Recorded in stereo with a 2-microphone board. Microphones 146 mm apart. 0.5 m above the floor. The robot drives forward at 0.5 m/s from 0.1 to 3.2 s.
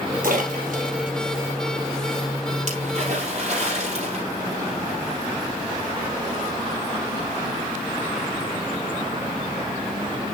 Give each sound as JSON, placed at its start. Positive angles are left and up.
{"t": 0.2, "sound": "a splash", "side_deg": -70, "distance_m": 3.0}